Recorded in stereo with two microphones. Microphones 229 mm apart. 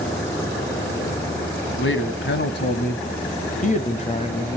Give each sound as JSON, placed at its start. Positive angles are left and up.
{"t": 1.8, "sound": "a man speaking", "side_deg": 60, "distance_m": 2.0}